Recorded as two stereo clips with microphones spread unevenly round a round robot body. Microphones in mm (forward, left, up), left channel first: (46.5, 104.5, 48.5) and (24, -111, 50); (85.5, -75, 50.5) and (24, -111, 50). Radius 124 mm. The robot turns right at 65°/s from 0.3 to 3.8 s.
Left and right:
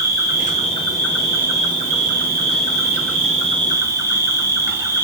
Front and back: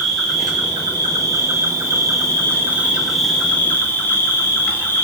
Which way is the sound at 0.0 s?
110° left.